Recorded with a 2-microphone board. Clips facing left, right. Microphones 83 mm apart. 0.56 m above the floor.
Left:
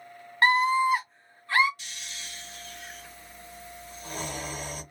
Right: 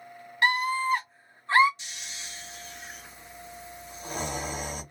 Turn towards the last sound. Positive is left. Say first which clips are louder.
# even
turn(degrees=-20)  # may be behind; listen again after turning